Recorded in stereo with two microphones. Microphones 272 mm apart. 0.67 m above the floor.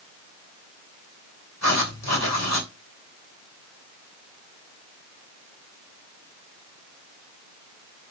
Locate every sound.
1.6 s writing: 75° left (ahead or behind), 3 m